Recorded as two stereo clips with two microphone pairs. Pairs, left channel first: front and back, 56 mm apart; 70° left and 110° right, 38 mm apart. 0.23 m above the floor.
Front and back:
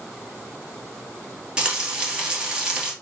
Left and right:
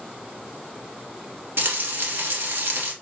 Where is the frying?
105° right, 1.6 m.